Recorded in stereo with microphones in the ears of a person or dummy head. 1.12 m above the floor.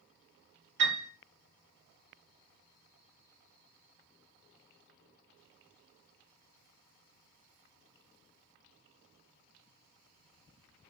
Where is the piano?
65° right (ahead or behind), 2.5 m.